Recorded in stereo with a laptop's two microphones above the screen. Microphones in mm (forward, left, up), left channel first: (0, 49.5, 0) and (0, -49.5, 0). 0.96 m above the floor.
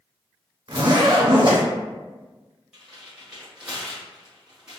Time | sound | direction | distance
0.7 | a zipper | 50° right (ahead or behind) | 1.3 m
2.7 | tearing paper | 10° right (ahead or behind) | 0.9 m